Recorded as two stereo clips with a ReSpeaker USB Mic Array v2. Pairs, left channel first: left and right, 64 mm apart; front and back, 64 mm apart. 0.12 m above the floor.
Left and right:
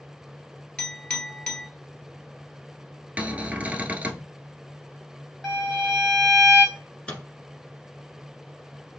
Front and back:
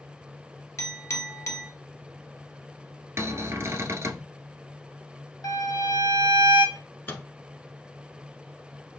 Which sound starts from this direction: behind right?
A cupboard door, at 3.2 s.